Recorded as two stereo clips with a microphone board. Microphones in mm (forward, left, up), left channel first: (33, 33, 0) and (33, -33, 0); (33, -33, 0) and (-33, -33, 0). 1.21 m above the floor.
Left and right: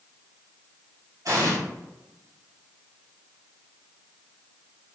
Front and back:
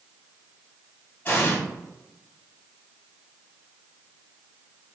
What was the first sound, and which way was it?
An explosion, 55° right.